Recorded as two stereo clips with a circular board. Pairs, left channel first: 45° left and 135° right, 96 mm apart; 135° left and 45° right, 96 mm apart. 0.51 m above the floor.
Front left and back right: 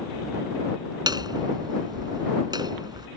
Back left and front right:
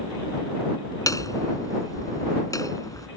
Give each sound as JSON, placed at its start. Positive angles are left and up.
{"t": 1.1, "sound": "hammering", "azimuth_deg": -175}